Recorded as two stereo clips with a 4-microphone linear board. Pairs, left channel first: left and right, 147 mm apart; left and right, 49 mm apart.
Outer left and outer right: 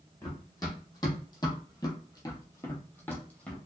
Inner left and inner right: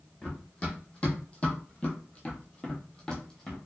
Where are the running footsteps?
25° left (ahead or behind), 1.3 m; by 3.6 s 10° left (ahead or behind), 1.0 m.